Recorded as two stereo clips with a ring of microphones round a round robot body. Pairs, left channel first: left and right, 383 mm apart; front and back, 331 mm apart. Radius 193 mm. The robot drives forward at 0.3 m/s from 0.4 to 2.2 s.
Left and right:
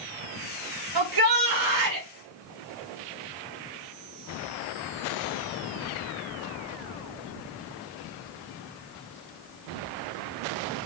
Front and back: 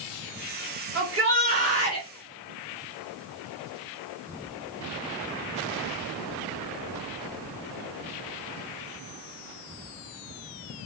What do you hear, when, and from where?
0.9 s a shout: 120° right, 1.8 m; by 2.1 s 130° right, 2 m